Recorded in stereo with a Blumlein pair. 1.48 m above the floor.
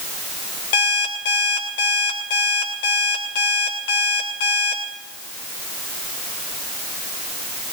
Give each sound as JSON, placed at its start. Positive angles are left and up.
{"t": 0.7, "sound": "an alarm clock", "azimuth_deg": 55, "distance_m": 2.5}